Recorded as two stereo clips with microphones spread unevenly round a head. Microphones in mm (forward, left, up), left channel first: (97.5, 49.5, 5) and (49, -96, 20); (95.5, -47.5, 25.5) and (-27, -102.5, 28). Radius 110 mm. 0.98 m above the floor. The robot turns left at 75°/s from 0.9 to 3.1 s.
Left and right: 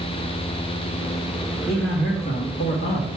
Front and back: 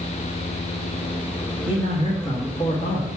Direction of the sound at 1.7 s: 165° left.